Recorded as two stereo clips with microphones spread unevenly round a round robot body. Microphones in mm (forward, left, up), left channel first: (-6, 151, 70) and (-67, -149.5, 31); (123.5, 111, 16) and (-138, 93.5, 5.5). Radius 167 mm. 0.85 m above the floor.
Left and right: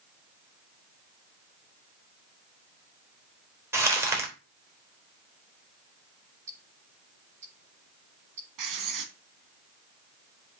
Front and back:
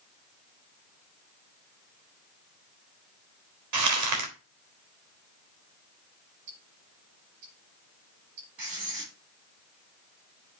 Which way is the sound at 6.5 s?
160° right.